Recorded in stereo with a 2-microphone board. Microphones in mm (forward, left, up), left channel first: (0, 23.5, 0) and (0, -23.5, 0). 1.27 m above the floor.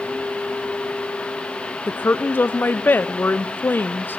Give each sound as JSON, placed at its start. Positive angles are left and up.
{"t": 1.9, "sound": "a woman speaking", "side_deg": 40, "distance_m": 0.6}